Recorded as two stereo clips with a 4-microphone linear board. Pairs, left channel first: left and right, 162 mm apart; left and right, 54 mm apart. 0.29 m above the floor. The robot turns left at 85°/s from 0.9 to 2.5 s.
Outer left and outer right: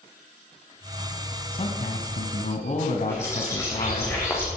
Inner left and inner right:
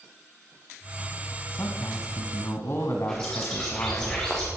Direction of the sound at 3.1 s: 15° left (ahead or behind).